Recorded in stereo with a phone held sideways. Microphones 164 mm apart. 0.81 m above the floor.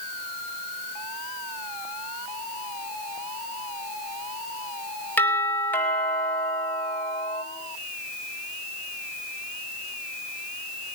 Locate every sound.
5.2 s a doorbell: 10° left (ahead or behind), 5 m